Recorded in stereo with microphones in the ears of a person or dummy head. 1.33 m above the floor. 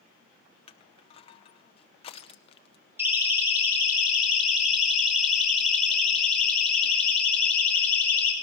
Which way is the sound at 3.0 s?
10° right (ahead or behind).